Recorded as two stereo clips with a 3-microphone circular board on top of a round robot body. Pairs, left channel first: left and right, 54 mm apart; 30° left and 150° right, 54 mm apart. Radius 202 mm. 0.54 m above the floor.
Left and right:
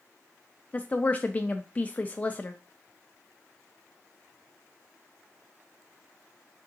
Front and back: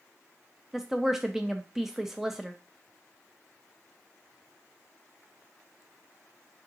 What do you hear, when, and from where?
0.7 s a woman speaking: 130° left, 0.6 m